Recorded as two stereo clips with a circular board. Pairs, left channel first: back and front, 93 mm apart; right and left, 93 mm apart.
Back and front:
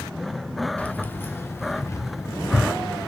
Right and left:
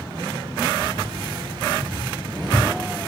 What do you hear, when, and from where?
0.8 s keys jangling: 105° left, 1.3 m; by 3.1 s 130° left, 2.5 m